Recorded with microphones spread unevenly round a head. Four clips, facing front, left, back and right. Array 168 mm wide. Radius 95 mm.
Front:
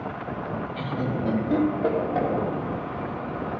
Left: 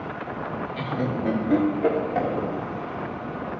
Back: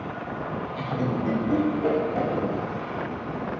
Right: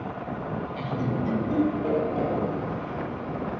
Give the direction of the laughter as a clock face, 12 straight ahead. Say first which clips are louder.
Left 2 dB, back 2 dB; 9 o'clock.